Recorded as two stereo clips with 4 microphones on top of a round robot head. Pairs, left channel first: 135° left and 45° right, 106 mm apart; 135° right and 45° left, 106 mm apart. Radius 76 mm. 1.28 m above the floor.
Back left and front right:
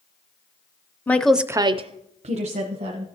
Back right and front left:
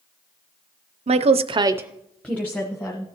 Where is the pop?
No pop in this recording.